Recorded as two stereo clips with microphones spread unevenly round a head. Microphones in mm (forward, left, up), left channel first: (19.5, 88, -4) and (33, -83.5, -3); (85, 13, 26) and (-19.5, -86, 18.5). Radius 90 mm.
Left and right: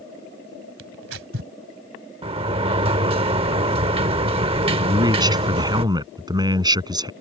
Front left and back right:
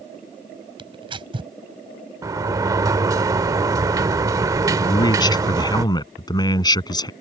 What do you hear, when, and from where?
0.8 s tearing paper: 80° right
2.2 s a sliding door: 85° right
4.8 s a man speaking: 20° right